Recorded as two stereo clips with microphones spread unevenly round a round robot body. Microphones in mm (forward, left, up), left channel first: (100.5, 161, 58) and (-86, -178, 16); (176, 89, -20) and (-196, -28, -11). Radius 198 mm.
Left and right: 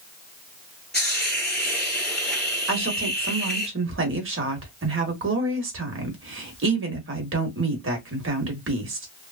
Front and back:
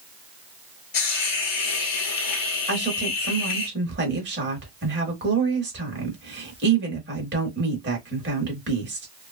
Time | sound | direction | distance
0.9 | a hiss | 25° right | 1.1 m
2.7 | a woman speaking | 115° right | 1.2 m